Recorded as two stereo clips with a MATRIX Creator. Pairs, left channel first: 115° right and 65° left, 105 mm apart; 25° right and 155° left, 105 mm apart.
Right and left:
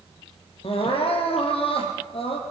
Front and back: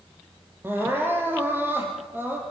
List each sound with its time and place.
0.6 s crying: 135° right, 3.5 m